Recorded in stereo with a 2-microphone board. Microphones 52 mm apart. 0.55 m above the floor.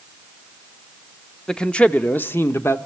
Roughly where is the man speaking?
Centre.